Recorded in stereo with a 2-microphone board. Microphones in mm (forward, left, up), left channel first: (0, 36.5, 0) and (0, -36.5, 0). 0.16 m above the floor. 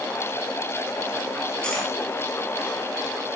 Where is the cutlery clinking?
10° left (ahead or behind), 2.5 m.